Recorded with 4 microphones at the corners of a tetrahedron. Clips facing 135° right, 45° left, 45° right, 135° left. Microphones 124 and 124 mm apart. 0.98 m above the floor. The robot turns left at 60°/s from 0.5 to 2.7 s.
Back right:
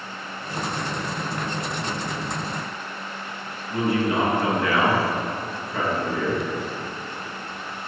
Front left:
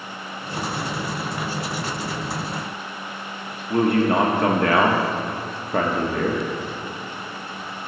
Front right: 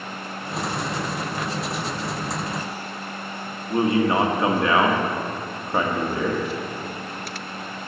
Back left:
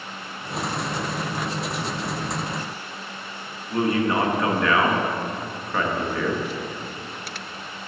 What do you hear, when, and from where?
3.7 s a man speaking: 15° left, 1.3 m